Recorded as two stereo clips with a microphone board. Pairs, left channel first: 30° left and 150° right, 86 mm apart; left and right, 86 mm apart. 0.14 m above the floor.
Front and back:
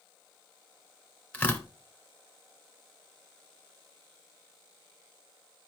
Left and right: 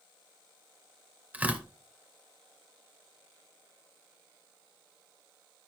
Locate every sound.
1.3 s tearing paper: 35° right, 1.5 m